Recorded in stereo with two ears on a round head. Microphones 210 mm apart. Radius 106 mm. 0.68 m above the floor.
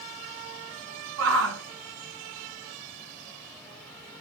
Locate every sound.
1.2 s a shout: 60° right (ahead or behind), 3 m